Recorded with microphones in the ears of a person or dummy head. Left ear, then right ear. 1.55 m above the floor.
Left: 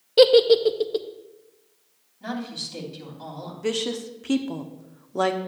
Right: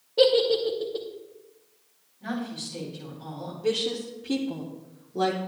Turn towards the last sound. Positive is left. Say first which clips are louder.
# even
turn(degrees=55)  # may be behind; listen again after turning